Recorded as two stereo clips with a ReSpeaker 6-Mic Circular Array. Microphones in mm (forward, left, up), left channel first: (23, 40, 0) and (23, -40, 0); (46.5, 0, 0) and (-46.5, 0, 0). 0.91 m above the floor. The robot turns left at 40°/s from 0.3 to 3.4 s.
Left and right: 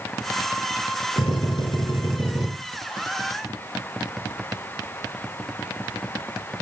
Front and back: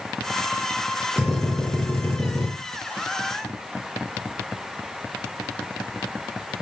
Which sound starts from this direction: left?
A drill, at 1.2 s.